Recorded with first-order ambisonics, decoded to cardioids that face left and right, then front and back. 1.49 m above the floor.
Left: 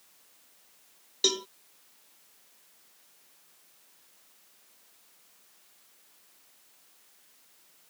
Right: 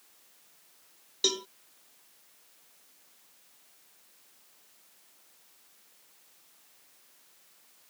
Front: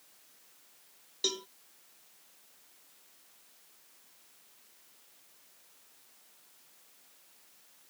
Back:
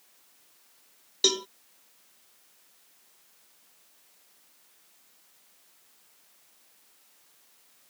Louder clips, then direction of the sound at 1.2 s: Left 2 dB, back 9 dB; 170° left.